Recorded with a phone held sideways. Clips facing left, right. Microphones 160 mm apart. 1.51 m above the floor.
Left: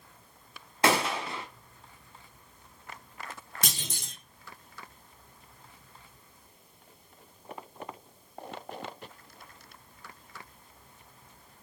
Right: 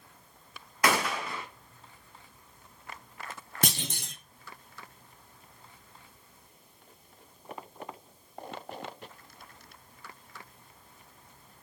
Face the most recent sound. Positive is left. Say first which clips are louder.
# right 8 dB
turn(degrees=-60)  # may be behind; listen again after turning